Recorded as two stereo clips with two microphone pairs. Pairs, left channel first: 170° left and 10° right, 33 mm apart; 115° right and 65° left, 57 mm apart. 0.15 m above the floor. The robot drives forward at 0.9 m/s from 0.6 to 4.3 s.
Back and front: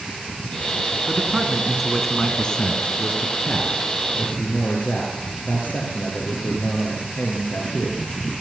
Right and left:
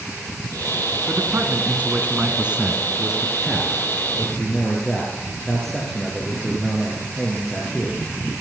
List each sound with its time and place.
1.1 s a man speaking: 40° left, 1.6 m; by 8.1 s 160° left, 2.5 m